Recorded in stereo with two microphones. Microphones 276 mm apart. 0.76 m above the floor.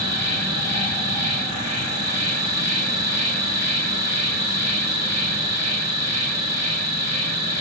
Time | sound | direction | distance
0.0 | an insect | 65° right (ahead or behind) | 2 m